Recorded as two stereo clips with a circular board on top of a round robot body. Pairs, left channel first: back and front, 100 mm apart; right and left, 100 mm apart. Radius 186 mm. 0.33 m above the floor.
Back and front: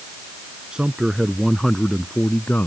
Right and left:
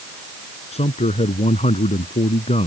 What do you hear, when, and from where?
0.7 s a man speaking: 80° right; by 2.7 s 105° right